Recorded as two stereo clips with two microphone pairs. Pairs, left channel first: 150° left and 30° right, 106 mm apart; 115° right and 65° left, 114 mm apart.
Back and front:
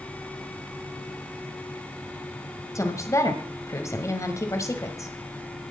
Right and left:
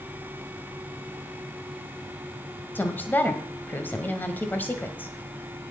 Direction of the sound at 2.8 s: 175° right.